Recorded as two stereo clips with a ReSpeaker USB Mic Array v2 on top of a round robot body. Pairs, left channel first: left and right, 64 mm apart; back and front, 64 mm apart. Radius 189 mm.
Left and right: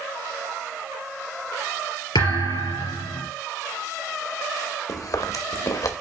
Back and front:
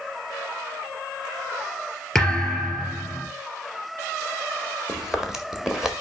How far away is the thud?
About 3.5 m.